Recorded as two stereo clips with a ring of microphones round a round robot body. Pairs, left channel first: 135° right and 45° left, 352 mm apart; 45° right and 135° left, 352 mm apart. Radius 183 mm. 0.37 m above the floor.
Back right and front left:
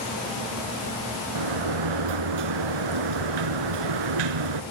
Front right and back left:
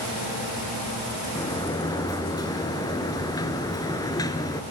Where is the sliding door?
35° left, 1.4 m.